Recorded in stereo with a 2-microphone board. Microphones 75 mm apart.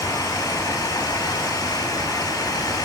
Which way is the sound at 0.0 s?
50° left (ahead or behind).